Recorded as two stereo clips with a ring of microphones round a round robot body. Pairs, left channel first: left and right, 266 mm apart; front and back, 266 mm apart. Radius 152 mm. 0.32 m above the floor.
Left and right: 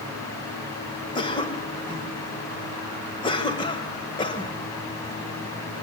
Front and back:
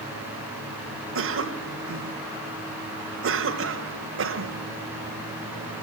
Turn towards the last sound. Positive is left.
turn(degrees=160)